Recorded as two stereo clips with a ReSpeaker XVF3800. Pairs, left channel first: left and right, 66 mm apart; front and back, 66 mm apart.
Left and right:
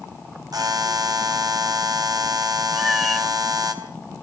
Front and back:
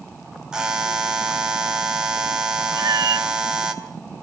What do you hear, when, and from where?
0.5 s a buzzer: 100° right, 3.5 m
2.7 s a cat meowing: straight behind, 1.0 m